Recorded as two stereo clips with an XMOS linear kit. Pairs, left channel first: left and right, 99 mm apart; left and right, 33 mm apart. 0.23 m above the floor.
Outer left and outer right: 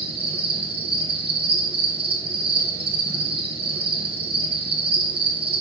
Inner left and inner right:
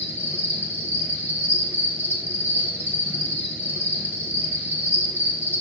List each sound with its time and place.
0.0 s an insect: 75° right (ahead or behind), 1.8 m